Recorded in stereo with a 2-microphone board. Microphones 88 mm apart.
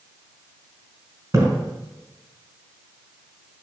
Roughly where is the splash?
Right.